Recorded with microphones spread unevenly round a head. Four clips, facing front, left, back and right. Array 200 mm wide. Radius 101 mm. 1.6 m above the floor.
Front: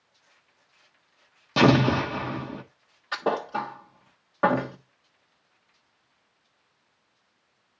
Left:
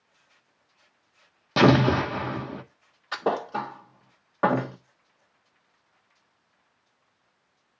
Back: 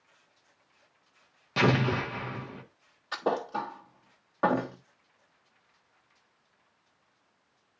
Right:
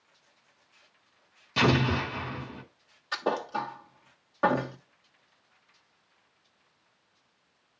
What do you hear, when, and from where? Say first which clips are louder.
1.6 s an explosion: left 7 dB, front 7 dB; 50° left, 1.1 m
3.1 s a thud: left 3 dB, front 3 dB; 55° left, 1.1 m